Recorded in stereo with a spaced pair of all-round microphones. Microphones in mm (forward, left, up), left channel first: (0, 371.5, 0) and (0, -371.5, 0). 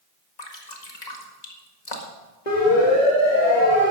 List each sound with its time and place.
0.4 s dripping: 65° left (ahead or behind), 1.9 m
2.5 s a siren: 70° left (ahead or behind), 3.5 m; by 3.9 s 65° left (ahead or behind), 2.5 m